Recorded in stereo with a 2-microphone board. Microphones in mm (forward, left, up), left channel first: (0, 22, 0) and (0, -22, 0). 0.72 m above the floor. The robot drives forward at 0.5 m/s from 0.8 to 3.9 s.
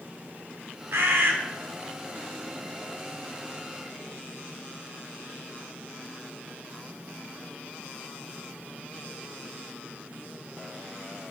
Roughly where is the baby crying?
I don't hear a baby crying.